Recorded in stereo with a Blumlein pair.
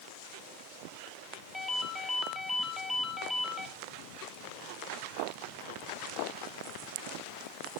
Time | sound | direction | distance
1.5 | a ringtone | 5° left | 2.5 m